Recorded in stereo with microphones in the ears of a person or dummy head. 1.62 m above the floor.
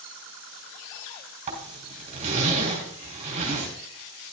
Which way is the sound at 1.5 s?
40° right (ahead or behind).